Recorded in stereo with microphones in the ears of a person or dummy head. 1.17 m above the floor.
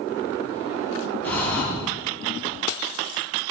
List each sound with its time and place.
1.2 s breathing: 10° left (ahead or behind), 10 m